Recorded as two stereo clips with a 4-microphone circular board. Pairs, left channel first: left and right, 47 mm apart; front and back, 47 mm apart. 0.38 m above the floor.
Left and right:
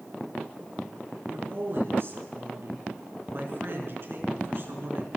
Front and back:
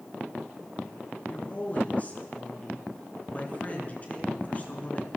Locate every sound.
1.3 s a woman speaking: 55° right, 4.5 m